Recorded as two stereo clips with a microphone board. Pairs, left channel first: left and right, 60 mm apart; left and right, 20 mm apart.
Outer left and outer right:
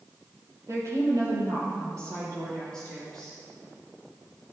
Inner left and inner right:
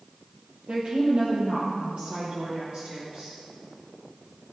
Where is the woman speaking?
55° right (ahead or behind), 4 m; by 3.4 s 75° right (ahead or behind), 6.5 m.